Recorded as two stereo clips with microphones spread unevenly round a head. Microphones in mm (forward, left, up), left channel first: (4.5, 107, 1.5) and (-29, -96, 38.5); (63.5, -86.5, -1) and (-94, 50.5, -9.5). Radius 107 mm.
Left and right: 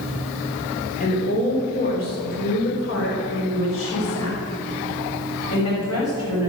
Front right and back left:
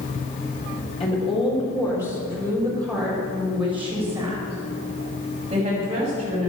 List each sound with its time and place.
1.0 s a woman speaking: 20° left, 4.5 m; by 6.5 s 80° left, 6 m